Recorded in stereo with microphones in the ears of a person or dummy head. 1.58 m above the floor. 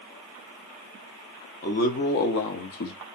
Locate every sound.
1.6 s a man speaking: 45° left (ahead or behind), 1.1 m; by 3.0 s 55° left (ahead or behind), 0.6 m